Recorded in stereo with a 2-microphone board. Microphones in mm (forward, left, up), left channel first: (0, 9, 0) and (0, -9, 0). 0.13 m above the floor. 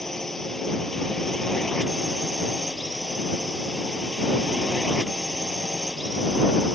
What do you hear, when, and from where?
0.0 s a drone: 20° left (ahead or behind)